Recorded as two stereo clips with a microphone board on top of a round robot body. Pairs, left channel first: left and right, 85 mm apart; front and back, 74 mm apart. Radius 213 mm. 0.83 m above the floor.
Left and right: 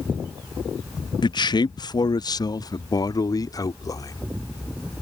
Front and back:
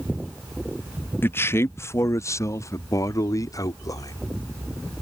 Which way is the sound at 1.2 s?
60° left.